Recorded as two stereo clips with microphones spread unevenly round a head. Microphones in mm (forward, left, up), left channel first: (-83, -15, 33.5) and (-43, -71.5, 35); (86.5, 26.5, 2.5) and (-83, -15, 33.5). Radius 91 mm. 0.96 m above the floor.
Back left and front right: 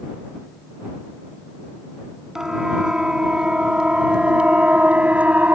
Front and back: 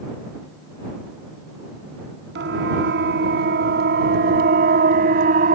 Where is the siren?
135° right; by 5.5 s 120° right.